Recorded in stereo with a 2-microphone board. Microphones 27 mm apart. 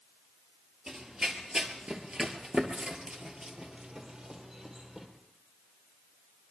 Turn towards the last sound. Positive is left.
turn(degrees=-20)  # may be behind; listen again after turning